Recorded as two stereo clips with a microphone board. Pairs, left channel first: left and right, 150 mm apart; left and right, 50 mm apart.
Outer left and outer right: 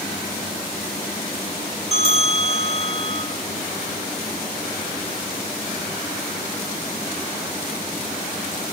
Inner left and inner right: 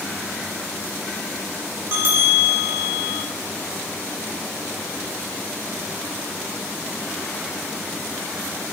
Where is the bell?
45° right (ahead or behind), 4 m.